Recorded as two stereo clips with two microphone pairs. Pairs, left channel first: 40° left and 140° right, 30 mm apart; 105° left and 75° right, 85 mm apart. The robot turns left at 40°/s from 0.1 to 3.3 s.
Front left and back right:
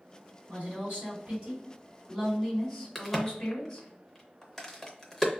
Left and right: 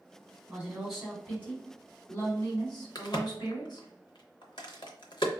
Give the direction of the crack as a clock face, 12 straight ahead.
8 o'clock.